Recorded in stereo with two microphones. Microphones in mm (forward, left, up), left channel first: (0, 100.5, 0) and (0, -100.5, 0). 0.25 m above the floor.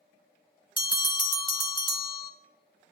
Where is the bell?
25° left (ahead or behind), 0.5 m.